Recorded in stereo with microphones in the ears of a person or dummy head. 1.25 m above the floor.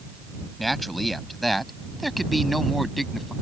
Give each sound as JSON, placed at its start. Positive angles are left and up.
{"t": 0.6, "sound": "a man speaking", "side_deg": 0}